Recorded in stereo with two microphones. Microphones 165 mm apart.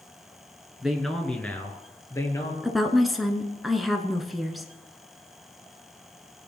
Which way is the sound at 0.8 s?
5° right (ahead or behind).